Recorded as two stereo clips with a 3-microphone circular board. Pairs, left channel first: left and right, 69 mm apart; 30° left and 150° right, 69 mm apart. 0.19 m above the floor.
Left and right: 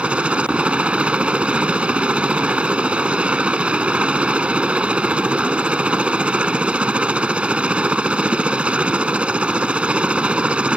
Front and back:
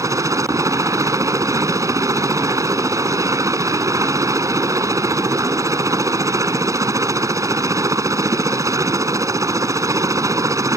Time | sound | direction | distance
0.0 | a helicopter | 160° right | ?